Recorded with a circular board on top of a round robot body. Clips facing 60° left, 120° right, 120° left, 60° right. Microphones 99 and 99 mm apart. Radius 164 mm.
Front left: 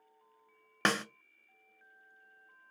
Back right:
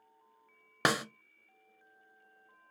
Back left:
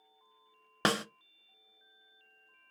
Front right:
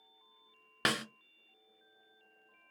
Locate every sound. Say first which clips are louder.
0.8 s a snare drum: back right 1 dB, back left 4 dB; 165° left, 0.6 m